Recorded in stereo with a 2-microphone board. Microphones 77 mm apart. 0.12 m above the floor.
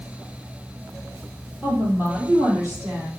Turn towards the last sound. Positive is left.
turn(degrees=-30)  # may be behind; listen again after turning